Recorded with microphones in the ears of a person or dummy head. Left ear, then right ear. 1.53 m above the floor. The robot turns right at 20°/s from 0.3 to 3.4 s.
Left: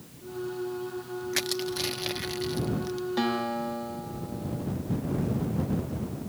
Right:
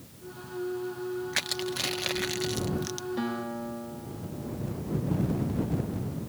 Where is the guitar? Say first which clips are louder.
Left 5 dB; 30° left (ahead or behind); by 4.7 s 35° left (ahead or behind).